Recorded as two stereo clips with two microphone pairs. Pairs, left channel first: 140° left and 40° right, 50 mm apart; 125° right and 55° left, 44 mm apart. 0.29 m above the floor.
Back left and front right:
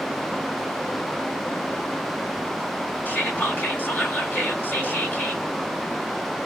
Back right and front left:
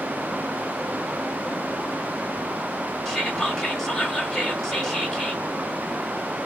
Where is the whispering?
150° left, 1.4 m.